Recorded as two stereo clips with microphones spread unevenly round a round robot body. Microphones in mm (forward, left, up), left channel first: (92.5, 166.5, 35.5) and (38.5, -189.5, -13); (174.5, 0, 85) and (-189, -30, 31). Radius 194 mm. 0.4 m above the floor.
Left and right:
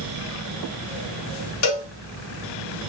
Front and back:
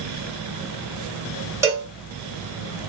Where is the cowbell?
115° left, 1.4 m.